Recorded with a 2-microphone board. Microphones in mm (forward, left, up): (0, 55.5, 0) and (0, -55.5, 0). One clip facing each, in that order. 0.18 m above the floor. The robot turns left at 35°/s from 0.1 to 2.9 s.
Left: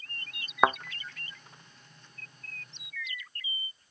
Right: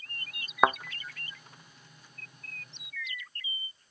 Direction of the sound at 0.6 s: Centre (ahead or behind).